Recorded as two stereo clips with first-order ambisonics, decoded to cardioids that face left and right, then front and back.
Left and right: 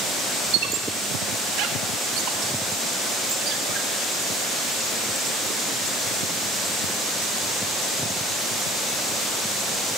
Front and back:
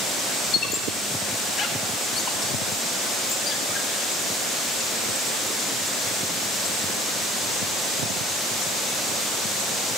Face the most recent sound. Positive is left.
turn(degrees=-60)